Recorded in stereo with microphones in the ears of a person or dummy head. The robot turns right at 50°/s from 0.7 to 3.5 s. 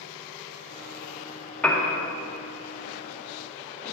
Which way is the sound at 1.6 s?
5° left (ahead or behind).